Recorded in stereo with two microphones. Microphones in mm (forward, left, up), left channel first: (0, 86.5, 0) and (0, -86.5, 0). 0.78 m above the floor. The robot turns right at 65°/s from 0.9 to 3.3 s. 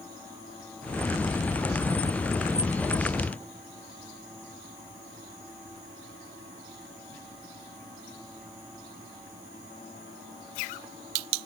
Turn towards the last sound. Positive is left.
No sound to turn to.